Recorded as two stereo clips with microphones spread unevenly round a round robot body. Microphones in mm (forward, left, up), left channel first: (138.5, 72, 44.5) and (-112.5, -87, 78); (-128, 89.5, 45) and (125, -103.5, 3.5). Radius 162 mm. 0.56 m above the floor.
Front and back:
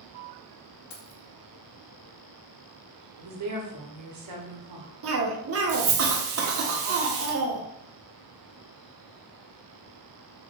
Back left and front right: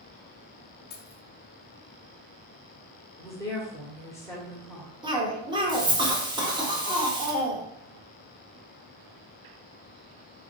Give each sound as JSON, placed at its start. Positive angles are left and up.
{"t": 0.9, "sound": "keys jangling", "azimuth_deg": 80, "distance_m": 0.9}
{"t": 3.2, "sound": "a woman speaking", "azimuth_deg": -135, "distance_m": 1.4}
{"t": 5.0, "sound": "a cough", "azimuth_deg": -110, "distance_m": 1.2}